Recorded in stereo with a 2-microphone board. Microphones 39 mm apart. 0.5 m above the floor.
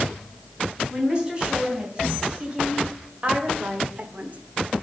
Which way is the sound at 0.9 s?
20° right (ahead or behind).